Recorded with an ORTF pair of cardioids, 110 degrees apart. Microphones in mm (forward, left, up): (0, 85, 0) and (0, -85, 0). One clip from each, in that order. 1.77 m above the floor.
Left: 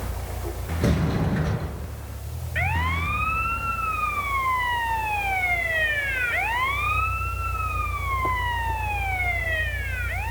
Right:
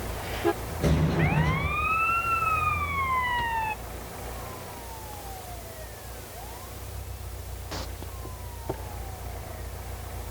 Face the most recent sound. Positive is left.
turn(degrees=20)